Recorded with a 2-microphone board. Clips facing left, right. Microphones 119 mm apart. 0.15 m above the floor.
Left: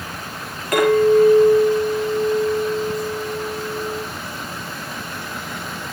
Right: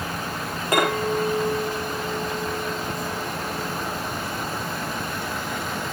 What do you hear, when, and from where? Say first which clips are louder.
0.7 s a clink: left 9 dB; 25° right (ahead or behind), 8.5 m